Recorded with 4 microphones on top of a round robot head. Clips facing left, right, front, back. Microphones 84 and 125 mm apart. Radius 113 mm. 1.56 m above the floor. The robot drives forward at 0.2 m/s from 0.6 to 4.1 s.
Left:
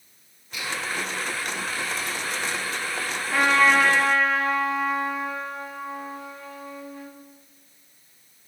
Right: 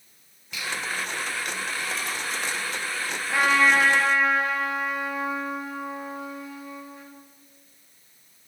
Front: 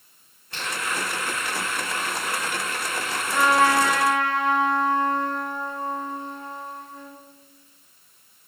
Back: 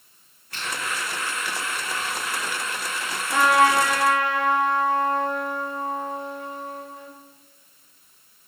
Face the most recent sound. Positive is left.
turn(degrees=-170)